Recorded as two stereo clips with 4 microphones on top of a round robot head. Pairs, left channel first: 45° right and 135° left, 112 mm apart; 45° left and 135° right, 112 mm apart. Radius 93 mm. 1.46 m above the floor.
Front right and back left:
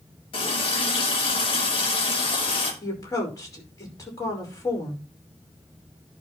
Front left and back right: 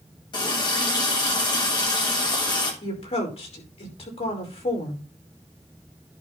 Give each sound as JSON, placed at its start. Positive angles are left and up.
{"t": 0.3, "sound": "a running tap", "azimuth_deg": -5, "distance_m": 2.5}
{"t": 2.8, "sound": "a woman speaking", "azimuth_deg": 15, "distance_m": 5.5}